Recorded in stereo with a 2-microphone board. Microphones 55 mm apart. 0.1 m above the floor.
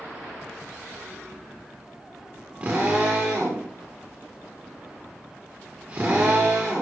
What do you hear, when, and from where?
2.6 s a drill: 30° right (ahead or behind), 8 m